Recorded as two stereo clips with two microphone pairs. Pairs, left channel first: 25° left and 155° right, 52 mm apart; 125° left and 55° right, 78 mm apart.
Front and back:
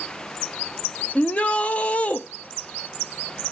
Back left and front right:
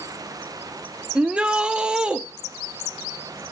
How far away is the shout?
About 0.7 m.